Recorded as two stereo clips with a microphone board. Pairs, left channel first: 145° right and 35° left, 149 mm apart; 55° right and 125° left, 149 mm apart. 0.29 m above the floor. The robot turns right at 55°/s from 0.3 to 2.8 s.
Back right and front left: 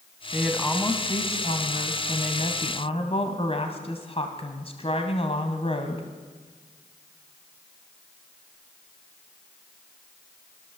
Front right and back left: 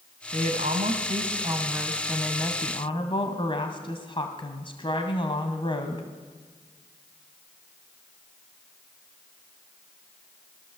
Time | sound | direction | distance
0.3 | a woman speaking | 120° left | 2.5 m